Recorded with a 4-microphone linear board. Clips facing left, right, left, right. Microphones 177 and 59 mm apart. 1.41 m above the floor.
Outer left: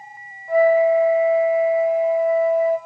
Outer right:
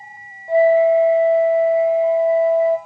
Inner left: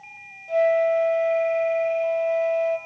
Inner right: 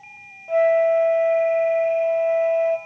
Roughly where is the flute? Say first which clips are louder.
Outer right 2 dB, inner right 3 dB; right.